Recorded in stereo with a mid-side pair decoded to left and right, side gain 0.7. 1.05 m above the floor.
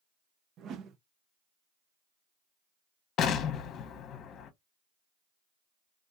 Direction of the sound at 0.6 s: 45° right.